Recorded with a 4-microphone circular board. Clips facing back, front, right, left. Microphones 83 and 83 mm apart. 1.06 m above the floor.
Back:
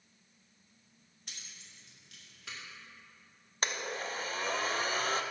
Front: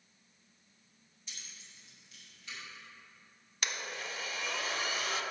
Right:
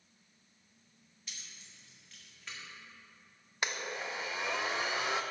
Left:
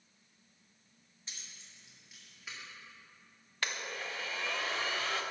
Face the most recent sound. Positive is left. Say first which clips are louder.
# back 4 dB, right 2 dB
turn(degrees=-155)